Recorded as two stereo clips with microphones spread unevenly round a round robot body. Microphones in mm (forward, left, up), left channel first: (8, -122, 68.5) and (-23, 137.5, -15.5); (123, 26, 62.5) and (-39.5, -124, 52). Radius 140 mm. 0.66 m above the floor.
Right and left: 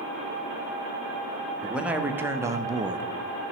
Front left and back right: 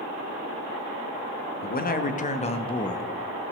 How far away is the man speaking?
About 1.0 m.